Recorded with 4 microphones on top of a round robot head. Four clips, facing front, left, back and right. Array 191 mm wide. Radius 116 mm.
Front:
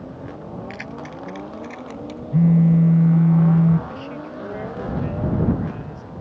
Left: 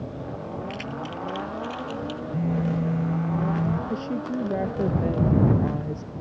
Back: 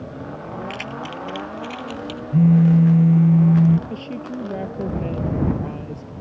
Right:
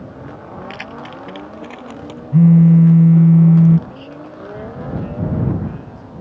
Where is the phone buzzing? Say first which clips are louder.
Right 17 dB, back 1 dB; 95° right.